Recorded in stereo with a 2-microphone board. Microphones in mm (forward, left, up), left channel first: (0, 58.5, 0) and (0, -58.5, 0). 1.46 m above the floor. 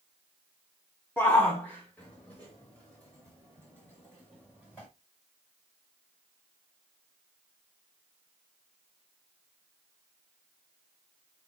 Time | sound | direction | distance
1.2 | a shout | 15° left (ahead or behind) | 1.1 m